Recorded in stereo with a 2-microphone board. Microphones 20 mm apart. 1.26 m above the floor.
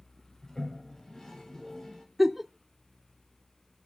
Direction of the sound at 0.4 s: 30° left (ahead or behind).